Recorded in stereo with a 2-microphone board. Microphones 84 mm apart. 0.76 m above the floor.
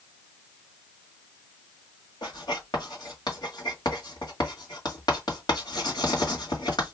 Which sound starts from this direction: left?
Writing, at 2.2 s.